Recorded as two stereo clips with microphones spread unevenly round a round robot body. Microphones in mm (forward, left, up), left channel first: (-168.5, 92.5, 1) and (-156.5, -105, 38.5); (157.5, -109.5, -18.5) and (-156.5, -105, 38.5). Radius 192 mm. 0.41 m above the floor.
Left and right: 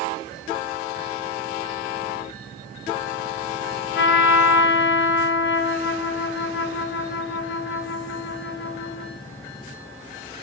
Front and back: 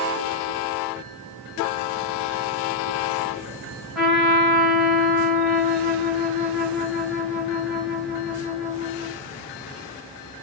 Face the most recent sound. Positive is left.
turn(degrees=85)